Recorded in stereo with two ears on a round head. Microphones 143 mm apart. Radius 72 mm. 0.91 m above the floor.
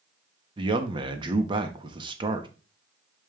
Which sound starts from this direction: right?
A man speaking, at 0.6 s.